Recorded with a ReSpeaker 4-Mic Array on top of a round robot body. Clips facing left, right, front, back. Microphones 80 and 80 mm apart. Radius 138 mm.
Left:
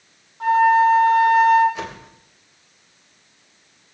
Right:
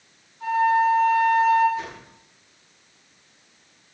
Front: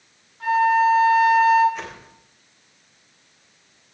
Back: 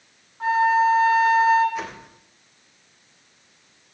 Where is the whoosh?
95° left, 3.5 m.